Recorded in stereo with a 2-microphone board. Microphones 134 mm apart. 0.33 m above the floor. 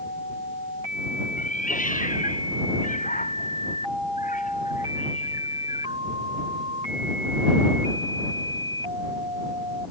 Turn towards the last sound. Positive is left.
turn(degrees=80)